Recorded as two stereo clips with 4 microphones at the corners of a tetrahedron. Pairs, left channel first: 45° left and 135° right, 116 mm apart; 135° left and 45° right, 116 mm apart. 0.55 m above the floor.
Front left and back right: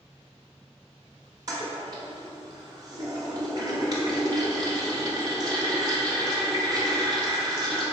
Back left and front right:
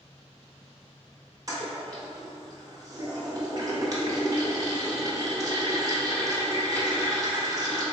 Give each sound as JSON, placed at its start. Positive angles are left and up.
{"t": 1.5, "sound": "a toilet flushing", "azimuth_deg": -90, "distance_m": 0.7}